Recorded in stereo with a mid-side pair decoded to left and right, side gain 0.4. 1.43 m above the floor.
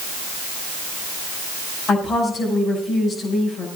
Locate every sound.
1.9 s a woman speaking: 60° left, 6.5 m